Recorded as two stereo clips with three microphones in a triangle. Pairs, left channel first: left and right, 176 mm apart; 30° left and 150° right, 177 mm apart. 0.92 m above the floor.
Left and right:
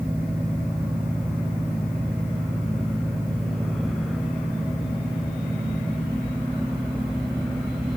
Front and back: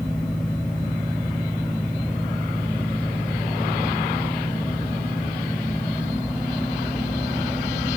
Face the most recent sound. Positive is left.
No sound to turn to.